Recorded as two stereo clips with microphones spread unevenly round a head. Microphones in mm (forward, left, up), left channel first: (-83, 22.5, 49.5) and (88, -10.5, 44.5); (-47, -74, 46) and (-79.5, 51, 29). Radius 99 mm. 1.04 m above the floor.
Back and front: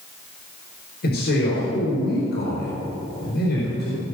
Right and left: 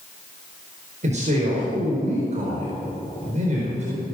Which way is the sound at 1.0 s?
135° left.